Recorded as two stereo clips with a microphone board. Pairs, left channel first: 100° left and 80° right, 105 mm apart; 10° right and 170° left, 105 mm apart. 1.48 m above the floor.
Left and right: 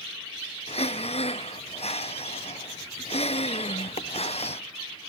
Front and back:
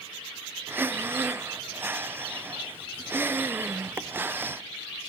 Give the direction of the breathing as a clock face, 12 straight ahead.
9 o'clock.